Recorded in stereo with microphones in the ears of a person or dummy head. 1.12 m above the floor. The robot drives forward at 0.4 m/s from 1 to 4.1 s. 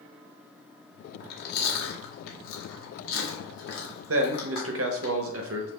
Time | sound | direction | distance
1.2 | chewing | 55° left (ahead or behind) | 1.2 m
4.1 | a man speaking | 70° right (ahead or behind) | 0.7 m